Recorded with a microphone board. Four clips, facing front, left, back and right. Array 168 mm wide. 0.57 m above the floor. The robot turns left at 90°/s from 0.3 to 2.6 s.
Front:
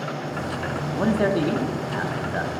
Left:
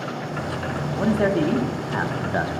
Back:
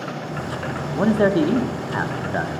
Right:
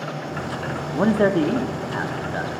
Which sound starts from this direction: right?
A man speaking, at 0.9 s.